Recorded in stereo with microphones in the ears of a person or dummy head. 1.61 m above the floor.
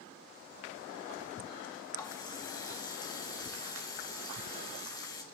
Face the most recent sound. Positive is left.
turn(degrees=20)  # may be behind; listen again after turning